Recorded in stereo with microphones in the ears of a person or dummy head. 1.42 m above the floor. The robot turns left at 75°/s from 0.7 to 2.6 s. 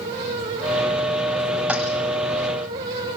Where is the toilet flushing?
5° right (ahead or behind), 1.3 m; by 1.8 s 10° right (ahead or behind), 1.3 m.